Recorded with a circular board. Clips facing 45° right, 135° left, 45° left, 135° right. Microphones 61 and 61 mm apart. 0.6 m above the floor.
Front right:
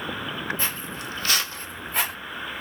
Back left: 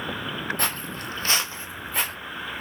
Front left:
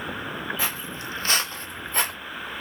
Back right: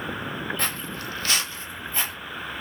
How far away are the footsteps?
About 1.0 m.